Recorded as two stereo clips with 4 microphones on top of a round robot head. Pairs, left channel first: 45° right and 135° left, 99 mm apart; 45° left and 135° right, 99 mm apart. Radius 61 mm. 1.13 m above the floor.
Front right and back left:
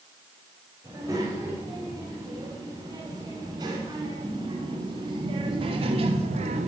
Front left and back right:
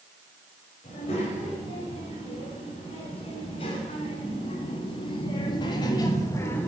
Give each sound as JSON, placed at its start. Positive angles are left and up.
{"t": 0.8, "sound": "a child speaking", "azimuth_deg": 75, "distance_m": 5.0}